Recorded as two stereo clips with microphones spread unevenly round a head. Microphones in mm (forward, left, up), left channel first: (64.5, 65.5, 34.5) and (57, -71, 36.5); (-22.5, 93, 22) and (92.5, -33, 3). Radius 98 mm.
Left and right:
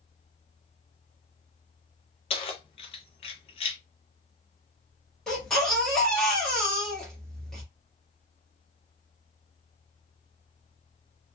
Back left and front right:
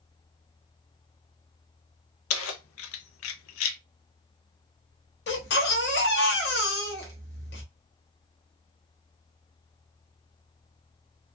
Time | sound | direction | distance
2.3 | keys jangling | 145° left | 0.5 m
5.3 | a baby crying | 175° left | 1.1 m